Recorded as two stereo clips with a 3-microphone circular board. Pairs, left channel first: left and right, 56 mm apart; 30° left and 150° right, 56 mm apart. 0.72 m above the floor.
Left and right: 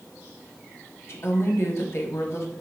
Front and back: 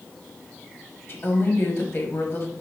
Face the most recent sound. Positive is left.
turn(degrees=65)